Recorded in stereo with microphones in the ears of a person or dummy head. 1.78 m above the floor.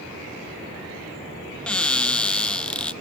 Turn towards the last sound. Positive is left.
turn(degrees=0)  # may be behind; listen again after turning